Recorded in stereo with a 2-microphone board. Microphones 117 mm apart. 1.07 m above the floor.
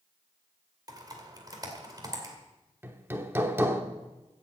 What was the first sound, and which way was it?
Typing on a keyboard, 35° right (ahead or behind).